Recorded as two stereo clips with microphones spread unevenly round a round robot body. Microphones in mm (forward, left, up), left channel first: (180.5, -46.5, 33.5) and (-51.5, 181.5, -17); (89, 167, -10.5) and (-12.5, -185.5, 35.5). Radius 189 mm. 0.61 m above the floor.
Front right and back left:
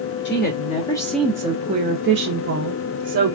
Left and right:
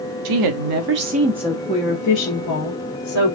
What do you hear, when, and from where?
0.2 s a woman speaking: 105° right, 0.7 m; by 3.4 s 100° left, 1.2 m